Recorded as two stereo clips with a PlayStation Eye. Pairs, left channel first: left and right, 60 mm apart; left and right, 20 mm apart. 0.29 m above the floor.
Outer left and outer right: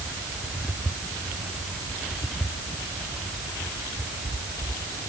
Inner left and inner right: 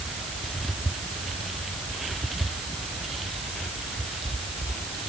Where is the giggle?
No giggle in this recording.